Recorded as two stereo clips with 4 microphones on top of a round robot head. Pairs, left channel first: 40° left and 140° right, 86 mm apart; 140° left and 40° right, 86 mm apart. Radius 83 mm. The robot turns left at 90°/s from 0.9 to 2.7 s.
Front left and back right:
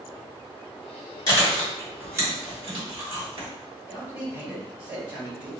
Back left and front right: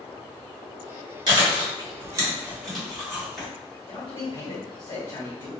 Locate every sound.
1.3 s chewing: 5° right, 1.9 m; by 3.5 s 135° right, 1.9 m
3.9 s a man speaking: 160° left, 1.7 m